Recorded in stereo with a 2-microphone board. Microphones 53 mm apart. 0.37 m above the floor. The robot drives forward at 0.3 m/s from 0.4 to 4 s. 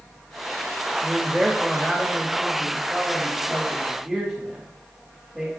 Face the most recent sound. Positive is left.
turn(degrees=0)  # may be behind; listen again after turning